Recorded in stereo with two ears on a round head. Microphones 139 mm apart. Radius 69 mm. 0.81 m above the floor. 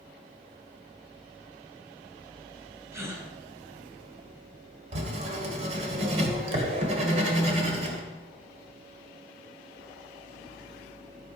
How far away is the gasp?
About 2 m.